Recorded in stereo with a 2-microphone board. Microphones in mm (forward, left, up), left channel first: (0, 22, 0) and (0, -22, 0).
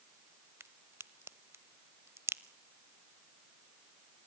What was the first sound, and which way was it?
A crack, 75° right (ahead or behind).